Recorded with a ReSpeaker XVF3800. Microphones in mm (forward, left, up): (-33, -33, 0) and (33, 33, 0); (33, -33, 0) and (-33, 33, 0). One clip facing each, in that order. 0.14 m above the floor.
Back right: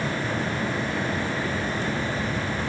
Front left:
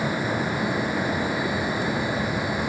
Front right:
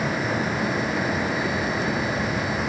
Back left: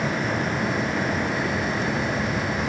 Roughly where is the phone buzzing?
I don't hear a phone buzzing.